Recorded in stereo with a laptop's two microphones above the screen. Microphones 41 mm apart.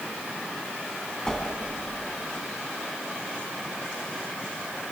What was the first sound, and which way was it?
A whoosh, 15° left (ahead or behind).